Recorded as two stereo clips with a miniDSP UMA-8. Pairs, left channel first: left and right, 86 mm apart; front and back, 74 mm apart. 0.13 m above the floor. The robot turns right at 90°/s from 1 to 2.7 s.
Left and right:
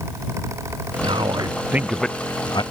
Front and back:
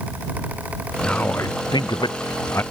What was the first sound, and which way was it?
A man speaking, 85° right.